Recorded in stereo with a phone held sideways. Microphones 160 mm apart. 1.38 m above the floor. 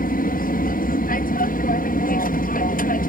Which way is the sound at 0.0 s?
65° left (ahead or behind).